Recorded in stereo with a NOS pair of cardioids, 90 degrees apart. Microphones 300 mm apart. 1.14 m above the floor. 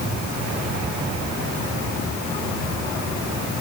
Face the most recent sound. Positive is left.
No sound to turn to.